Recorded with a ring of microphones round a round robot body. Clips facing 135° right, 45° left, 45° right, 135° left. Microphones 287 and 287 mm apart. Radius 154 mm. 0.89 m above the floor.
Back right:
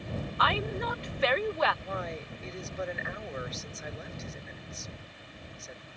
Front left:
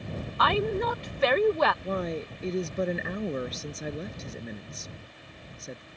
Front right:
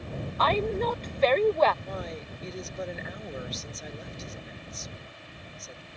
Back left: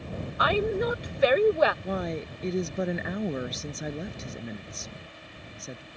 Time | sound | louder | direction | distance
0.4 | a woman speaking | front left 8 dB, back left 1 dB | 60° left | ?
1.8 | a woman speaking | front left 7 dB, back left 6 dB | 100° left | ?